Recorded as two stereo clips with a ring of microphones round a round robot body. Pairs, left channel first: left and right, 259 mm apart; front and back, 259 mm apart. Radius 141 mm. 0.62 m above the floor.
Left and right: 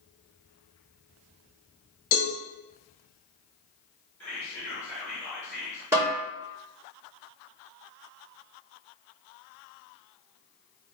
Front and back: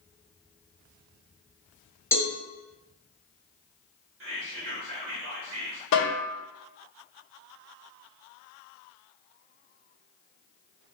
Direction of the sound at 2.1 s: 80° left.